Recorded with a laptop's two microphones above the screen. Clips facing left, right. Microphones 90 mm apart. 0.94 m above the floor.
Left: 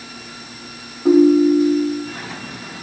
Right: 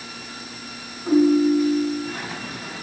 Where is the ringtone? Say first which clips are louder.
Left 5 dB; 70° left (ahead or behind), 0.6 m.